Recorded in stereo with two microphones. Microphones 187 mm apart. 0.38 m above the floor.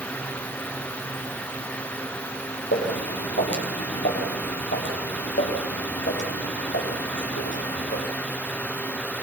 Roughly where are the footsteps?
Left.